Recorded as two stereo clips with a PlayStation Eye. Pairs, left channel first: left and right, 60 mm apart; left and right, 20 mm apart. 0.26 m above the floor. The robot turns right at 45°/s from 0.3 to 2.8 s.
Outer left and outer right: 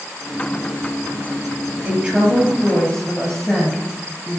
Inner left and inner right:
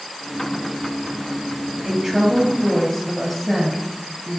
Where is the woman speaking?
35° right, 6 m; by 4.4 s 10° left, 6 m.